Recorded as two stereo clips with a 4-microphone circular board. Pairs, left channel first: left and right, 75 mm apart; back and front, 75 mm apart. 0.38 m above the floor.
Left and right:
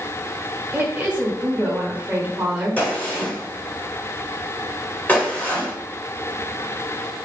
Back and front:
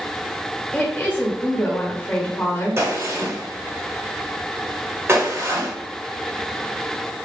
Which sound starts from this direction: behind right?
A woman speaking, at 0.7 s.